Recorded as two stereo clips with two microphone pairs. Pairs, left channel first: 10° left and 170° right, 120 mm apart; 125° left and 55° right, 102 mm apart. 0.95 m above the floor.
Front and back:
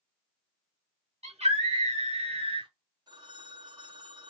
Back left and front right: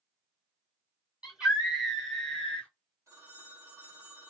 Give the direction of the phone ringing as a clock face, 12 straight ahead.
4 o'clock.